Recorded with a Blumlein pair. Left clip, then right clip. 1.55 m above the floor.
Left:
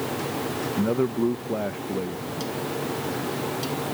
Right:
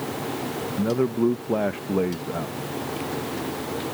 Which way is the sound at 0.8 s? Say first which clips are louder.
Right 2 dB; straight ahead.